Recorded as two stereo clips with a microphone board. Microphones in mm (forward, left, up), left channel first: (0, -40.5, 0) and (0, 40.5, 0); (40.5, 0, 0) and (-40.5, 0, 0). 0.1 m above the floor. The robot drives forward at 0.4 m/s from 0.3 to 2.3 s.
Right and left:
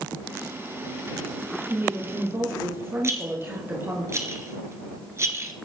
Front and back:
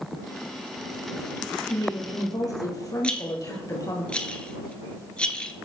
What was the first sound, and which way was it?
A woman speaking, 35° left.